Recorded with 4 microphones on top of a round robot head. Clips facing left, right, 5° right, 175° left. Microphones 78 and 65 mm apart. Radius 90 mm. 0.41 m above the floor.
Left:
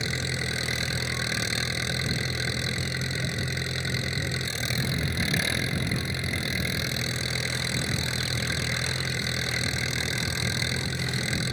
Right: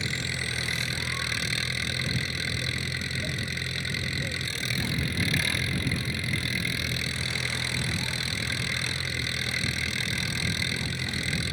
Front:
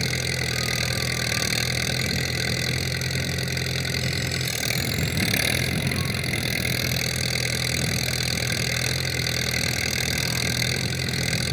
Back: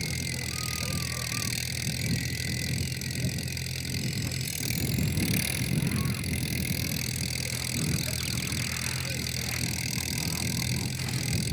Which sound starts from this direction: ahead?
An engine running, at 0.0 s.